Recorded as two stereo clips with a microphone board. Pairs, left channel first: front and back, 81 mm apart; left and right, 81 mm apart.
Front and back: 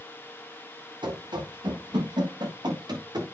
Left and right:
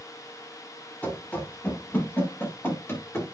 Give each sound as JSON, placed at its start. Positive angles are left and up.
{"t": 1.0, "sound": "running footsteps", "azimuth_deg": 160, "distance_m": 7.5}